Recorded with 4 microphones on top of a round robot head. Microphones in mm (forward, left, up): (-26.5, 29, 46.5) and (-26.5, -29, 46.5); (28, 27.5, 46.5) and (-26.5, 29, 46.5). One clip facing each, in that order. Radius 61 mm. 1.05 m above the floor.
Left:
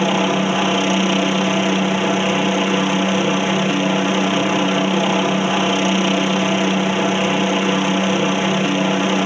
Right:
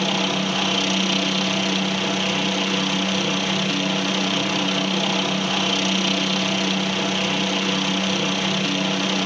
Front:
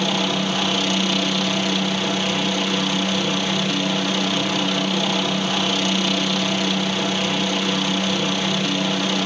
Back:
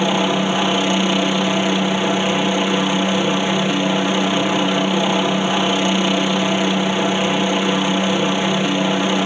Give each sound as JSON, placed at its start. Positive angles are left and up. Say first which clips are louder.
{"t": 0.0, "sound": "a helicopter", "louder": "left 6 dB, back 5 dB", "azimuth_deg": 130}